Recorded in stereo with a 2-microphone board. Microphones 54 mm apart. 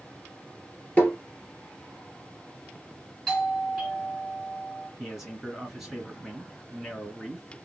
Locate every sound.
1.0 s tapping: 25° left (ahead or behind), 2.5 m
3.3 s a doorbell: 5° left (ahead or behind), 3.5 m
5.0 s a man speaking: 5° right (ahead or behind), 2 m